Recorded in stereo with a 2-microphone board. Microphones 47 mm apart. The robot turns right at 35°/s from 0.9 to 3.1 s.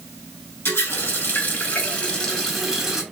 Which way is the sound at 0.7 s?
120° left.